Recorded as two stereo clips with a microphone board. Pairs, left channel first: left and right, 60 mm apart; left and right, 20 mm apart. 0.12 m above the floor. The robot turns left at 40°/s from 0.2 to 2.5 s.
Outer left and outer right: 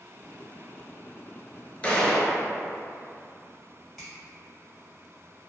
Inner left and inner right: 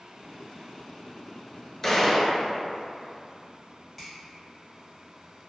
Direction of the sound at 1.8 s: 20° left (ahead or behind).